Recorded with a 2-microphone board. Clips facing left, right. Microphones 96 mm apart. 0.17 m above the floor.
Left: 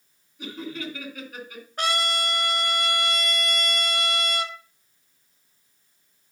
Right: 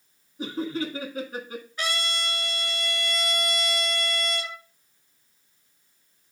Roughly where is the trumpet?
Left.